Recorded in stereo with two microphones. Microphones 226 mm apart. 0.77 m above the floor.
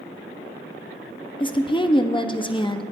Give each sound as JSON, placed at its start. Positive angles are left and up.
{"t": 1.4, "sound": "a woman speaking", "side_deg": 20, "distance_m": 0.6}